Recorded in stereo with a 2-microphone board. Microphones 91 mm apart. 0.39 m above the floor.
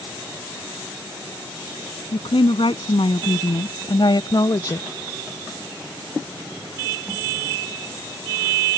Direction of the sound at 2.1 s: 75° left (ahead or behind).